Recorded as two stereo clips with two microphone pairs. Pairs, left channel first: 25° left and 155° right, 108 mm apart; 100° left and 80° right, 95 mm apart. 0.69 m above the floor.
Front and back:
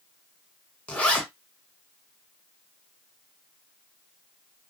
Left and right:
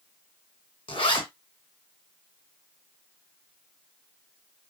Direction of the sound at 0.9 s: 100° left.